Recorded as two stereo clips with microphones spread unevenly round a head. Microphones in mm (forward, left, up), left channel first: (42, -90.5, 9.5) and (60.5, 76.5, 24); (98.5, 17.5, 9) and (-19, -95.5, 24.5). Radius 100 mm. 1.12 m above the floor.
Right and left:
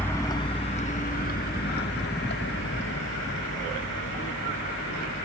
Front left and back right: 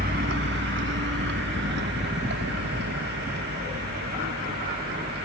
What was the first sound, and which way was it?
A vehicle, straight behind.